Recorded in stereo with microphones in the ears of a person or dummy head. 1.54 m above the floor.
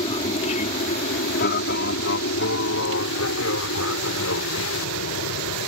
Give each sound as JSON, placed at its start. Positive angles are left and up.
{"t": 0.0, "sound": "an aircraft", "side_deg": 40}